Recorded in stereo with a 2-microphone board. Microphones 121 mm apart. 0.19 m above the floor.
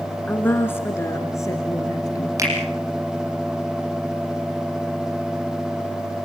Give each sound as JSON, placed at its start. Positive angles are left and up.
{"t": 0.3, "sound": "a woman speaking", "side_deg": 10, "distance_m": 2.0}
{"t": 2.4, "sound": "a finger snap", "side_deg": -25, "distance_m": 7.0}